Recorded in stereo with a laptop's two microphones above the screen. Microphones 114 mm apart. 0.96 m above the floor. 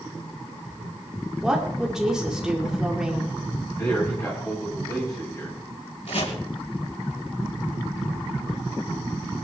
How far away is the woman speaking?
About 2.5 m.